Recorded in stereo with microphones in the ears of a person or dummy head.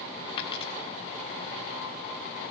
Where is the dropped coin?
30° left (ahead or behind), 3 m.